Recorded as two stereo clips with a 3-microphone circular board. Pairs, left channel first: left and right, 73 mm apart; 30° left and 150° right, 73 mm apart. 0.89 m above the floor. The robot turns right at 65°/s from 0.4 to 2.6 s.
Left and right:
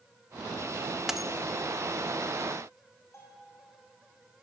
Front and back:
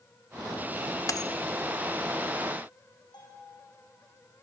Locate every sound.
1.1 s a dropped coin: 10° right, 0.8 m; by 1.3 s 5° left, 0.8 m
3.1 s a bell: 40° left, 7.5 m